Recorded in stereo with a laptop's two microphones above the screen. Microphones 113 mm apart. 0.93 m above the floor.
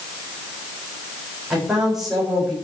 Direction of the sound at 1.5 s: 5° right (ahead or behind).